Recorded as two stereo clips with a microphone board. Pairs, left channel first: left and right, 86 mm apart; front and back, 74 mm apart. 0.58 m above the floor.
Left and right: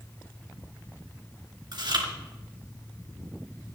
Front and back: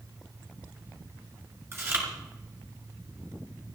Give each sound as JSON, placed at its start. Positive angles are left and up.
{"t": 1.7, "sound": "chewing", "azimuth_deg": -125, "distance_m": 3.5}